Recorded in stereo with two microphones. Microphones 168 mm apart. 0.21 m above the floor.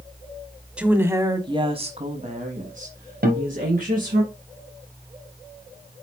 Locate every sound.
0.8 s a woman speaking: 5° right (ahead or behind), 1.2 m; by 4.2 s 50° right (ahead or behind), 2.5 m
3.2 s a guitar: 65° right (ahead or behind), 2.5 m